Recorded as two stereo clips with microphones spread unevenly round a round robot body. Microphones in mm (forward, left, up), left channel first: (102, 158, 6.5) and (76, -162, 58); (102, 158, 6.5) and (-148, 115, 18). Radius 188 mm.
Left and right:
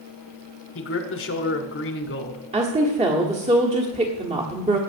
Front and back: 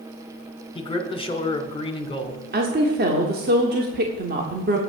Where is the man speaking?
70° left, 1.7 m.